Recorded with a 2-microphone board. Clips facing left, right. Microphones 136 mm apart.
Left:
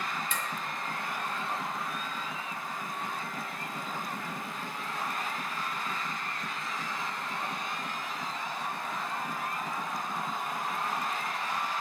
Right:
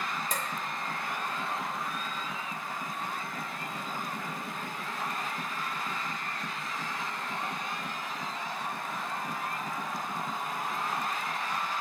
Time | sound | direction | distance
0.3 | dishes clattering | 40° right (ahead or behind) | 0.9 m